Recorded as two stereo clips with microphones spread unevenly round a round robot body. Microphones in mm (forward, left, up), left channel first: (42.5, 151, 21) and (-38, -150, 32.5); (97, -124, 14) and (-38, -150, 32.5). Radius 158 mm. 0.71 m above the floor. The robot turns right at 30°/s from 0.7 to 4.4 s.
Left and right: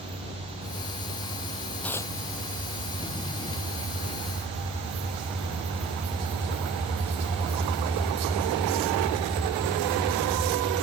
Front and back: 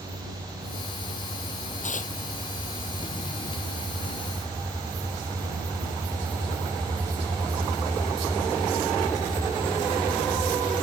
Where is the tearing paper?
10° right; by 2.1 s straight ahead.